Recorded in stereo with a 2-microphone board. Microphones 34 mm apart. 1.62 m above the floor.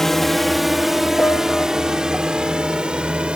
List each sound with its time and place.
0.0 s a drone: 10° left (ahead or behind); by 3.4 s 30° right (ahead or behind)
1.2 s a piano: 55° left (ahead or behind)